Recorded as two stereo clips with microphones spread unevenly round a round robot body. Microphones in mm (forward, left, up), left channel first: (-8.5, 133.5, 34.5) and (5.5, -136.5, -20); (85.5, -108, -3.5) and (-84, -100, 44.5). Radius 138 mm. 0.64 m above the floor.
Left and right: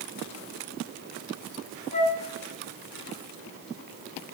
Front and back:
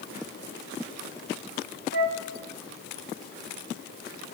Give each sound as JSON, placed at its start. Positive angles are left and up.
{"t": 1.9, "sound": "a flute", "azimuth_deg": 160, "distance_m": 1.1}